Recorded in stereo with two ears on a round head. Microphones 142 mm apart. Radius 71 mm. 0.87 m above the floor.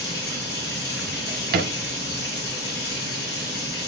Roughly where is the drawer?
Right.